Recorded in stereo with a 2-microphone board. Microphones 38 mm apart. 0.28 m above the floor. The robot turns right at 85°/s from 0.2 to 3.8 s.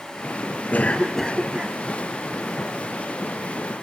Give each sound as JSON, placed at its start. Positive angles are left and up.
{"t": 0.7, "sound": "a cough", "azimuth_deg": 130, "distance_m": 5.5}